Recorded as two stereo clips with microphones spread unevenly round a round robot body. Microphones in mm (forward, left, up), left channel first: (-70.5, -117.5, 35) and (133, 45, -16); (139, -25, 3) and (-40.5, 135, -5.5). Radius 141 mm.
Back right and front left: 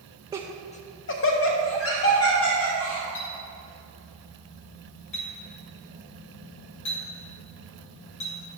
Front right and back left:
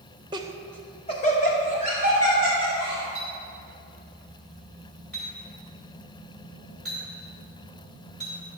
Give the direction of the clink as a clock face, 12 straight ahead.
4 o'clock.